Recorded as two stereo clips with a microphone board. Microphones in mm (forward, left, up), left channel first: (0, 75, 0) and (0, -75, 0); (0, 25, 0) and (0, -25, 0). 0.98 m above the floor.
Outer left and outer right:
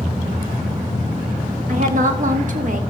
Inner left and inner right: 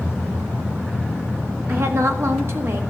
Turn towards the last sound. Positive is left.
turn(degrees=-60)  # may be behind; listen again after turning